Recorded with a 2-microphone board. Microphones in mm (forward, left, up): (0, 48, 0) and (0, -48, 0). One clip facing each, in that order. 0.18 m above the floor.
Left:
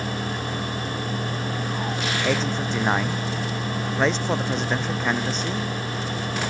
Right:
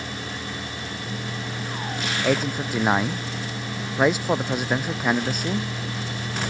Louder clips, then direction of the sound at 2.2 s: Right 2 dB; 10° right (ahead or behind).